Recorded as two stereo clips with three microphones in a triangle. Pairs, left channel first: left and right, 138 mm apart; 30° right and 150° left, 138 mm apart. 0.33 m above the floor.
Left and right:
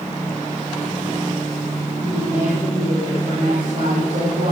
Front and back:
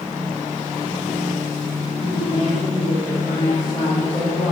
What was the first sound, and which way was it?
A woman speaking, 90° right.